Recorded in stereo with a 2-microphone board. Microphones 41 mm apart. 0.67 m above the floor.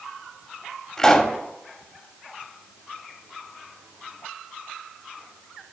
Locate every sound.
1.0 s a pop: 10° left (ahead or behind), 1.5 m